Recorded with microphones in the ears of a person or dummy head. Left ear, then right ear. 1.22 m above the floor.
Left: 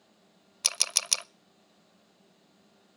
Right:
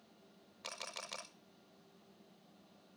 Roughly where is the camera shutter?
Left.